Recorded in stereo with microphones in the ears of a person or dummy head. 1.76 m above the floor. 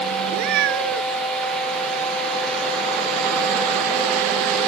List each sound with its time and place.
0.3 s a cat meowing: 65° right (ahead or behind)